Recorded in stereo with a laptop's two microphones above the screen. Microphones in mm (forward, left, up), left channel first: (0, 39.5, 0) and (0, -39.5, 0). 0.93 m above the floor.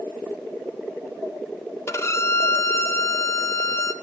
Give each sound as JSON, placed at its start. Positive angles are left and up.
{"t": 1.9, "sound": "a violin", "side_deg": 35, "distance_m": 0.5}